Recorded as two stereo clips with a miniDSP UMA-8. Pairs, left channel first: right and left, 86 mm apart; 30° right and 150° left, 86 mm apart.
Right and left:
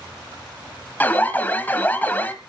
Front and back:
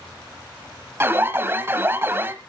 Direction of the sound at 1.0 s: 155° right.